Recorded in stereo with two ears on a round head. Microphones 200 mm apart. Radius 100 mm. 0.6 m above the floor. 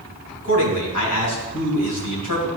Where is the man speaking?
80° left, 3.5 m.